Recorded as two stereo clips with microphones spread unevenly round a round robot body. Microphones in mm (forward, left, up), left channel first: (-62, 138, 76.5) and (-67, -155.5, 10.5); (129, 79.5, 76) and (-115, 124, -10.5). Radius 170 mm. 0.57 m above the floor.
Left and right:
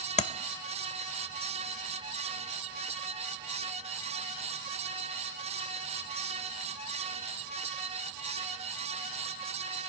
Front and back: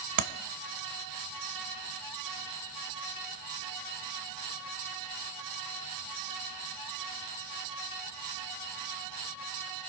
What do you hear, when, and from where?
0.2 s tapping: 155° left, 0.8 m